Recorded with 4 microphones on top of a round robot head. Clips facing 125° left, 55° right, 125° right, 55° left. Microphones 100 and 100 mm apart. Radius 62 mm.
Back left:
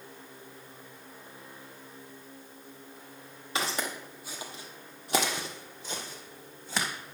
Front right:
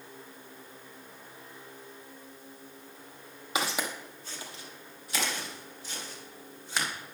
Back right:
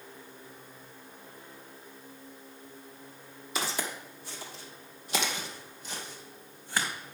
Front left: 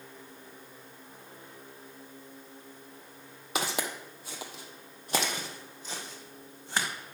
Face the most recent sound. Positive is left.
turn(degrees=125)